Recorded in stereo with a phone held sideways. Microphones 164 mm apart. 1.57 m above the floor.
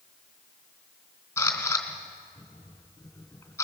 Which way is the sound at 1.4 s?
15° left (ahead or behind).